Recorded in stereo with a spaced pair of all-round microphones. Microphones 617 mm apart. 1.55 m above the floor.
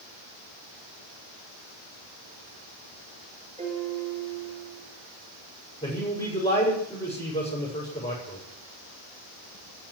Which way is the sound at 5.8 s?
10° left (ahead or behind).